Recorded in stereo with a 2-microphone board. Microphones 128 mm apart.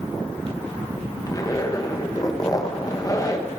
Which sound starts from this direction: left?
A zipper, at 1.3 s.